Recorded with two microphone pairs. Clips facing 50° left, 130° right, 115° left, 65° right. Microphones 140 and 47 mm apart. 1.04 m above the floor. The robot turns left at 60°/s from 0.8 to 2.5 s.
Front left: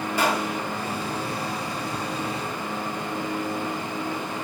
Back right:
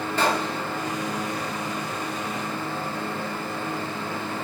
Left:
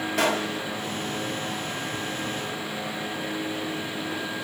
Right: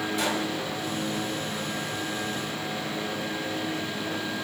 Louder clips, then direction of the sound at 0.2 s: Even, left 6 dB; 130° left.